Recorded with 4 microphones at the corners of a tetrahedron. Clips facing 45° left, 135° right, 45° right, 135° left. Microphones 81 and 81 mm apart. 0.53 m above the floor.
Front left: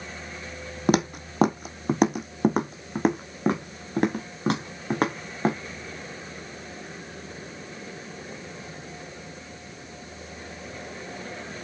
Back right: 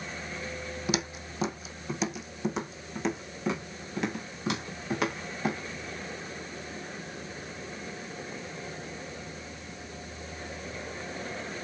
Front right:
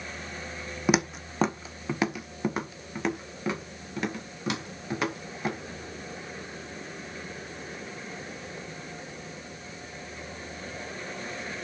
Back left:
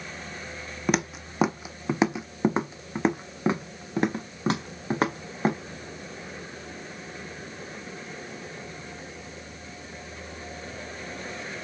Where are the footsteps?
40° left, 0.8 m; by 5.6 s 90° left, 3.5 m.